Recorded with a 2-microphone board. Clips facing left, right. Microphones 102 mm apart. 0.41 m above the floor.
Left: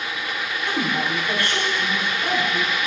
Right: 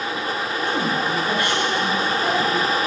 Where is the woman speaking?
15° right (ahead or behind), 4 m.